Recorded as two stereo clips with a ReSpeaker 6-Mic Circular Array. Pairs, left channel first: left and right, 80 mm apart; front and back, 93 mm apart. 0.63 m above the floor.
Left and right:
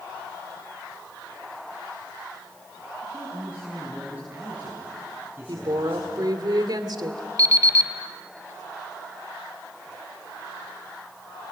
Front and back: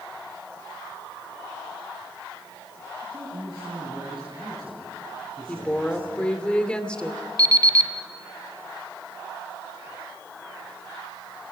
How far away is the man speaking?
About 7 m.